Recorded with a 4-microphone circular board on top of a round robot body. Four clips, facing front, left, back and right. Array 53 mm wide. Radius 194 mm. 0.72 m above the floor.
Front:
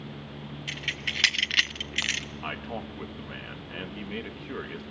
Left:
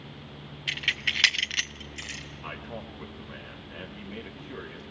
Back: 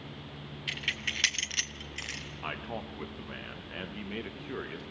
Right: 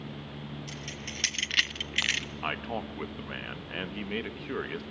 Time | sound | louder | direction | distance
0.7 | keys jangling | left 11 dB, front 1 dB | 95° left | 0.9 m
2.4 | a man speaking | right 4 dB, back 2 dB | 85° right | 1.5 m